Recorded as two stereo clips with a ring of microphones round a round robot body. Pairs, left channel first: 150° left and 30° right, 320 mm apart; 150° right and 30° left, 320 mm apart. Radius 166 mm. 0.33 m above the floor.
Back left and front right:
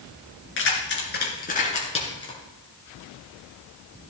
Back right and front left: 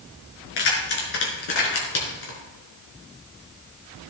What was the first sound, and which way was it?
Keys jangling, 155° right.